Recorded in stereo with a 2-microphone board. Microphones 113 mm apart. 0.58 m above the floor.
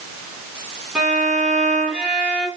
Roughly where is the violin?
Centre.